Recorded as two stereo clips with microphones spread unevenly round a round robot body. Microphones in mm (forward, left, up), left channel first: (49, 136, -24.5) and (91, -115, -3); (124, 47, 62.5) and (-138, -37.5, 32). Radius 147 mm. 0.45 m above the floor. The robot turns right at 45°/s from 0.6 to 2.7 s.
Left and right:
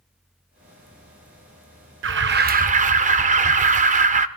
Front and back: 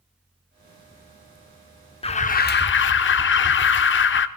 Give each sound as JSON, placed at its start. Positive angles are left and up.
{"t": 2.0, "sound": "an alarm", "azimuth_deg": -55, "distance_m": 0.8}